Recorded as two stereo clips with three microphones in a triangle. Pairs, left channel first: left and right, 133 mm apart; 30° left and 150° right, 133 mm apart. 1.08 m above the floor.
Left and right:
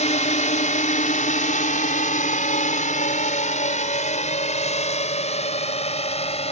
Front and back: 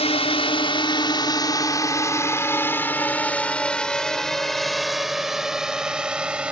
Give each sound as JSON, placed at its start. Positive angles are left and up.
{"t": 0.0, "sound": "a drone", "azimuth_deg": 65}